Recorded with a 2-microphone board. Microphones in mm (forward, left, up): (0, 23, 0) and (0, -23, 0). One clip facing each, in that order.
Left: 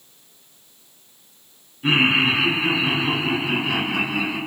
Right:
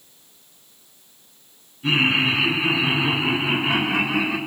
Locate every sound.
1.8 s laughter: 25° left (ahead or behind), 2.5 m; by 4.4 s 50° right (ahead or behind), 4 m